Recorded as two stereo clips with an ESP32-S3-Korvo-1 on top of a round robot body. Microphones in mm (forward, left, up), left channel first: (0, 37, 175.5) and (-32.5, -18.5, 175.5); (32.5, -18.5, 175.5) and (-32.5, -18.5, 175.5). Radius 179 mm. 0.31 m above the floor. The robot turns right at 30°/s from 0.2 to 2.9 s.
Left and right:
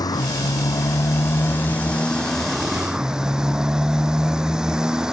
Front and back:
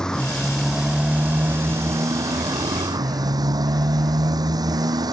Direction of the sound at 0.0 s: 80° left.